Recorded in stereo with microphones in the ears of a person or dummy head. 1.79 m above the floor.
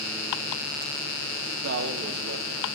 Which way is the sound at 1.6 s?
60° right (ahead or behind).